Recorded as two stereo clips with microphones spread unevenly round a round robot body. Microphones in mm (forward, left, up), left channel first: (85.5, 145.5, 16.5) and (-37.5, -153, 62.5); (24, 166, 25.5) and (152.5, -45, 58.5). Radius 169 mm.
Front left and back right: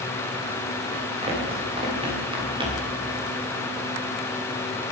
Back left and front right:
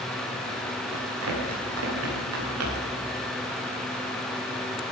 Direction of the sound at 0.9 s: 40° right.